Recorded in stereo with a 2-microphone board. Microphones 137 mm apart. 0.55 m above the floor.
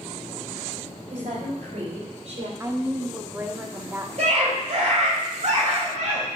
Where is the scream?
55° right (ahead or behind), 3.5 m.